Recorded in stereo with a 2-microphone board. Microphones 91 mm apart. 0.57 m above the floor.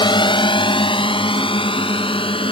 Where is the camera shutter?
I don't hear a camera shutter.